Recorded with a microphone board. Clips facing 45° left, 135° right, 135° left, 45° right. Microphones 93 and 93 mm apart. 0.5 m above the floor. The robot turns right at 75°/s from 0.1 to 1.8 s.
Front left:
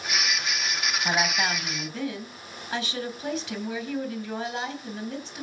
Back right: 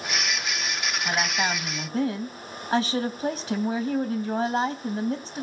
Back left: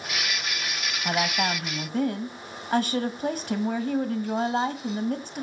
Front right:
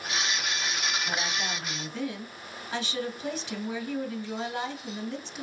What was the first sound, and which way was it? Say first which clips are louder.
A woman speaking: even, back left 6 dB; 115° left.